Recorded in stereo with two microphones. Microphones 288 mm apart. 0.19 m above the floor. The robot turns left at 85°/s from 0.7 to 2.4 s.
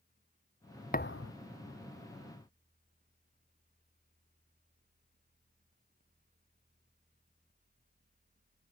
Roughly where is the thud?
Left.